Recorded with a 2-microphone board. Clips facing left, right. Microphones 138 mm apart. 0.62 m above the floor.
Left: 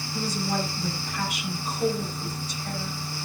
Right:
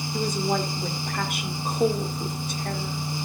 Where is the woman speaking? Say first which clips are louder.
Right 3 dB; 55° right (ahead or behind), 2 m.